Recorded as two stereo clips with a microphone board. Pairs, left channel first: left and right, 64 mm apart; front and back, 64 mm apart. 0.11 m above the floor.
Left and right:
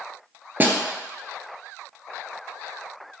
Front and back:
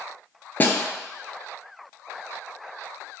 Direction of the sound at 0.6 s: 45° right.